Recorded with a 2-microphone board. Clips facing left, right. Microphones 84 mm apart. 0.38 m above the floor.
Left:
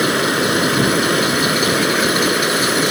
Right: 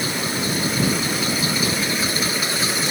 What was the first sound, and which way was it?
Running water, 70° left (ahead or behind).